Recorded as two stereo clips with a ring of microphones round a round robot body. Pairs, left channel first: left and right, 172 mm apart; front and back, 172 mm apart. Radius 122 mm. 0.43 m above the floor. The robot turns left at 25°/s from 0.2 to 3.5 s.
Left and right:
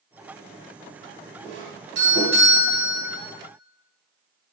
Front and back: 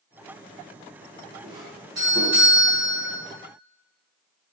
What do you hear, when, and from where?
1.4 s a doorbell: 100° right, 4 m; by 3.2 s 140° right, 4 m